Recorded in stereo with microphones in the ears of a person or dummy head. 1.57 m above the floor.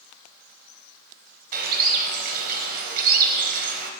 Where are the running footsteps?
I don't hear running footsteps.